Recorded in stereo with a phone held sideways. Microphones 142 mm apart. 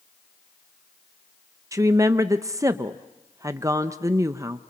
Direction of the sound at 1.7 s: 25° right (ahead or behind).